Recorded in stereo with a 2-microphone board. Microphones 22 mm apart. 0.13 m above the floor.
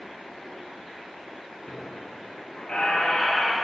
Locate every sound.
1.7 s a squeak: 50° left (ahead or behind), 1.5 m